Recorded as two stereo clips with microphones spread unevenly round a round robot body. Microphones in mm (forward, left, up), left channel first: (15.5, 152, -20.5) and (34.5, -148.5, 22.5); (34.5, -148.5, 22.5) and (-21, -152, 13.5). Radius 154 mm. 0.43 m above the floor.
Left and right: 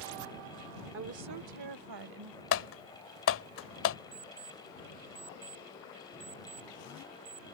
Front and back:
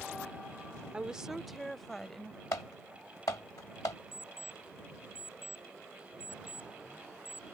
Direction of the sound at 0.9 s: 130° right.